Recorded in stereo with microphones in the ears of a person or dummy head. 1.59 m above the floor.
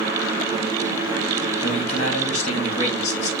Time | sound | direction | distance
1.6 | a man speaking | 45° left (ahead or behind) | 2.5 m